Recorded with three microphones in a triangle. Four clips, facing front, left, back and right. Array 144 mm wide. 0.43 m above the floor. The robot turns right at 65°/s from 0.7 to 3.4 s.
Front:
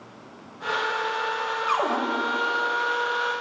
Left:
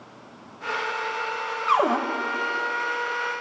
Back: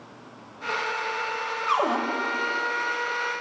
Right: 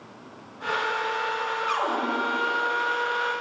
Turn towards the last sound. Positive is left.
turn(degrees=-155)